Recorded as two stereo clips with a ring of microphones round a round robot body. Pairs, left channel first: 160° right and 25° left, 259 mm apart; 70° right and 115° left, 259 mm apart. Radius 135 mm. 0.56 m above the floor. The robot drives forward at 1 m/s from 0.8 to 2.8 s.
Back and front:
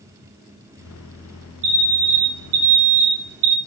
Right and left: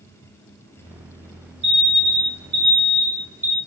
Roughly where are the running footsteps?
No running footsteps in this recording.